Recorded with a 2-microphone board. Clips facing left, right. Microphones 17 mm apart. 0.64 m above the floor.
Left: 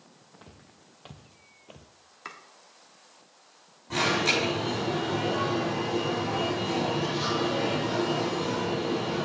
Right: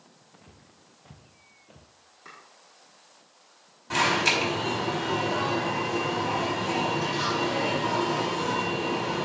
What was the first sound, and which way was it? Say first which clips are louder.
Footsteps: left 2 dB; 60° left (ahead or behind).